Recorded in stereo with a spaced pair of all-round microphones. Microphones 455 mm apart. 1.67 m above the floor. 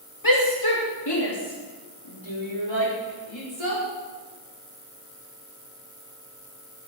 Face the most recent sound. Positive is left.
turn(degrees=80)